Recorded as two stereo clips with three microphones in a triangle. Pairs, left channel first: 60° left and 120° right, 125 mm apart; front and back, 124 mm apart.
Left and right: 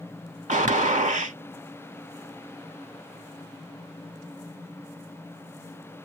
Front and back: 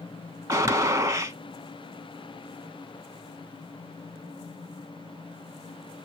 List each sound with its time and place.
0.5 s a gunshot: 120° right, 0.5 m